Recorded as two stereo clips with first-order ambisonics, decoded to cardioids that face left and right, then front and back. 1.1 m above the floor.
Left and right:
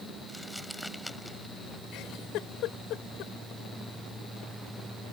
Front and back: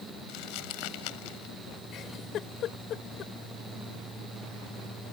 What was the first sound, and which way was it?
Crumpling, 5° left.